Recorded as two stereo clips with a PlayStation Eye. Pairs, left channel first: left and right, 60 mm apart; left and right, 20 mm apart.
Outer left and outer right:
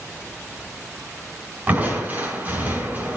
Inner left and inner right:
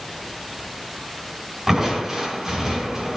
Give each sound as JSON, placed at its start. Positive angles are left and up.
{"t": 1.7, "sound": "crushing", "side_deg": -30, "distance_m": 3.5}